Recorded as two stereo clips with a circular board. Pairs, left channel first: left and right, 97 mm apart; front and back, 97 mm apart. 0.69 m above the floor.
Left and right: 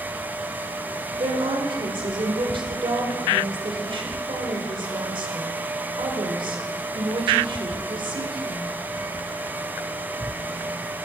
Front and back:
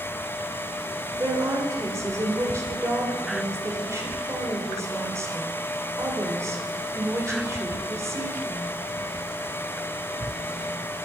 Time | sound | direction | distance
1.2 | a woman speaking | 120° right | 2 m